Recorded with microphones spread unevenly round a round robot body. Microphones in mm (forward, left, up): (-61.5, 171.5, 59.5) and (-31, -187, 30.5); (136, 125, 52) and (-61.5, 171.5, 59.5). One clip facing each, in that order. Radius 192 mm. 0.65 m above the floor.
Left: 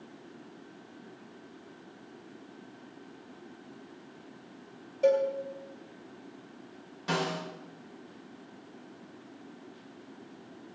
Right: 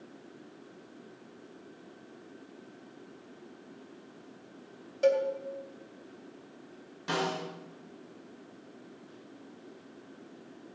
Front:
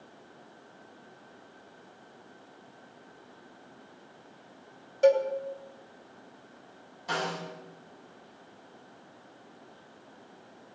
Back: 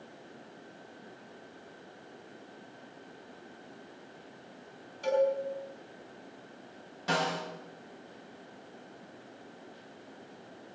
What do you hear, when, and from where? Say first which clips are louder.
5.0 s a cowbell: left 1 dB, front 5 dB; 30° right, 2.5 m
7.1 s a snare drum: even, back 2 dB; 175° right, 7 m